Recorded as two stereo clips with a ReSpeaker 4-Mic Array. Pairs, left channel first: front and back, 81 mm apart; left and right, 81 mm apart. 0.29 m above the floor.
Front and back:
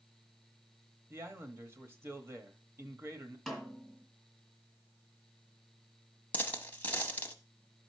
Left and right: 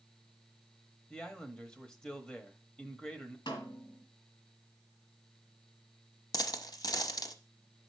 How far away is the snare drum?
About 2 m.